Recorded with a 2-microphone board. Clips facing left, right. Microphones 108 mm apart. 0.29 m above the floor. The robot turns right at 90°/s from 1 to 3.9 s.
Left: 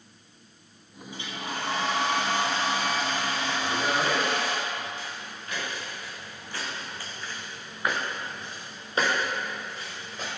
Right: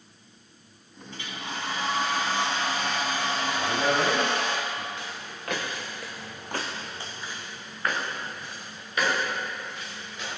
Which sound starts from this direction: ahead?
A hair dryer, at 1.1 s.